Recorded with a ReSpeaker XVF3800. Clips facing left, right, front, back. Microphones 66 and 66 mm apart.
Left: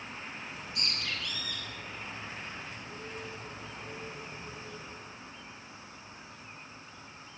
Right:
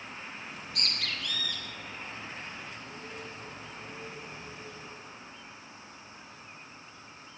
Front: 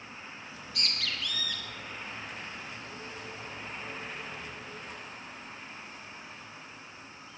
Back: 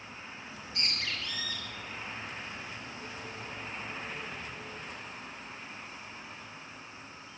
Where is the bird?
120° right, 7 m.